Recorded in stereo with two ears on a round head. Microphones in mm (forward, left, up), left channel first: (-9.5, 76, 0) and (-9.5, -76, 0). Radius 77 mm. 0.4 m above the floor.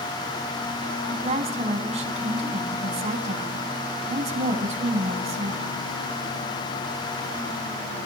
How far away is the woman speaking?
About 3.5 m.